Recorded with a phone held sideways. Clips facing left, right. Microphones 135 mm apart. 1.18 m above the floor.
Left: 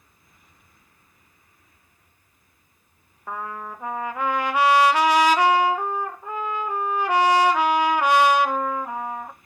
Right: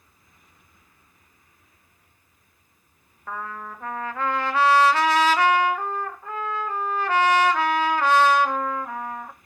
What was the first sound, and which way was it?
A trumpet, 15° left (ahead or behind).